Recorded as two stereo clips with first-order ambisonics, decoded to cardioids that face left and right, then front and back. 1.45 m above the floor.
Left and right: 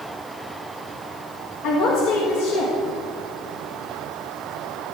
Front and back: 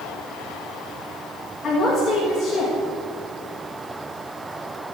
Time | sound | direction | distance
1.6 | a woman speaking | 75° left | 1.6 m